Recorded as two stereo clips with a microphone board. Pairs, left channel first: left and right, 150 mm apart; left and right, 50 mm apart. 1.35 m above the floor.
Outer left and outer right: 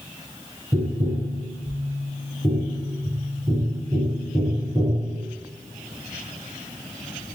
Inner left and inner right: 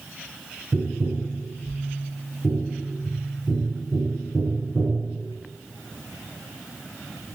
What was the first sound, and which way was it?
Tapping, 25° right (ahead or behind).